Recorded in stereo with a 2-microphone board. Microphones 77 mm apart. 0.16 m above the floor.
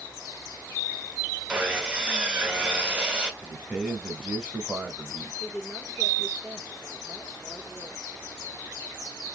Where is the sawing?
10° right (ahead or behind), 1.0 m.